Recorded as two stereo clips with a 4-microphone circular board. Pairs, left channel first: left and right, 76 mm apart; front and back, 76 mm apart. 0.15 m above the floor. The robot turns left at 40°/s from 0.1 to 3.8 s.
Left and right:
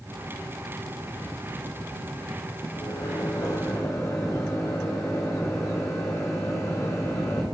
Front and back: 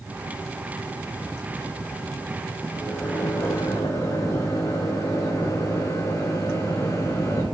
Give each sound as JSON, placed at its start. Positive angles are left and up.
{"t": 2.7, "sound": "a microwave", "azimuth_deg": 85, "distance_m": 7.0}